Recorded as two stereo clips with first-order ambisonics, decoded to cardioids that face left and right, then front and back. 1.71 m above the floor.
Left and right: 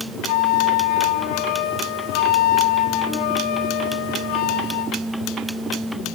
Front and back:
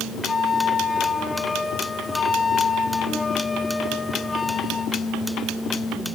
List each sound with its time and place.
0.3 s a flute: 80° left, 1.1 m